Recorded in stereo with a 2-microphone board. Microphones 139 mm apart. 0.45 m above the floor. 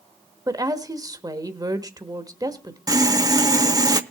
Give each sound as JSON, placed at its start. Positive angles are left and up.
{"t": 0.5, "sound": "a woman speaking", "side_deg": -25, "distance_m": 1.2}
{"t": 2.9, "sound": "sawing", "side_deg": -25, "distance_m": 0.8}